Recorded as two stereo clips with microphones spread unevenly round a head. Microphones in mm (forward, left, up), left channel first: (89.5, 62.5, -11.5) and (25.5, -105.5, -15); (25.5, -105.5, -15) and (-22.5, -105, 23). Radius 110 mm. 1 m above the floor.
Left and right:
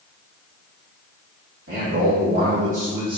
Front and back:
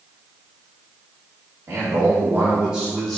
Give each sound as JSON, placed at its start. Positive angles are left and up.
{"t": 1.7, "sound": "a man speaking", "azimuth_deg": -135, "distance_m": 1.6}